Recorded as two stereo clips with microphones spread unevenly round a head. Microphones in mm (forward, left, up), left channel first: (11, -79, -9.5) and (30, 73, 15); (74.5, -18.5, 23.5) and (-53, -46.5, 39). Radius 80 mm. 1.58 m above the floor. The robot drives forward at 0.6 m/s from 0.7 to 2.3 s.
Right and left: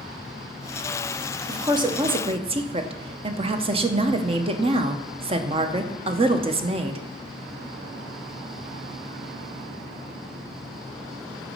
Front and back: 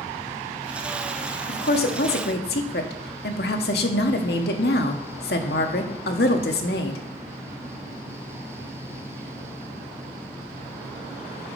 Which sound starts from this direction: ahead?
A woman speaking, at 1.5 s.